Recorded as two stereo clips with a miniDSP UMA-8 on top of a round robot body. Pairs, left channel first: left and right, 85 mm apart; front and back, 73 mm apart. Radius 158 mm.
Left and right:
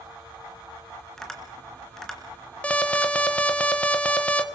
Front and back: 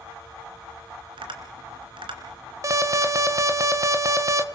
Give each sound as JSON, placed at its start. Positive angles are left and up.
{"t": 1.2, "sound": "tapping", "azimuth_deg": 175, "distance_m": 3.0}
{"t": 2.6, "sound": "an alarm", "azimuth_deg": 160, "distance_m": 2.0}